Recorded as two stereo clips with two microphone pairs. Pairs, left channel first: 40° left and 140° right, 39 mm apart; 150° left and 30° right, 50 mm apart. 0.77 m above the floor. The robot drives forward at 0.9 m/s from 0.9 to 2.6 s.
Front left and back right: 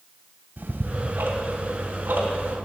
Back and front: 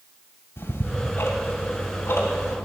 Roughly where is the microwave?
I don't hear a microwave.